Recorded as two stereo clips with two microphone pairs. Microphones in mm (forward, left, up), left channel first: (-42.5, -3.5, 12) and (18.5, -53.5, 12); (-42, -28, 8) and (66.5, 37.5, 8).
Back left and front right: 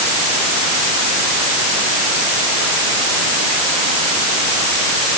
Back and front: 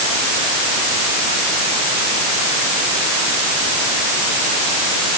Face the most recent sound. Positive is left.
No sound to turn to.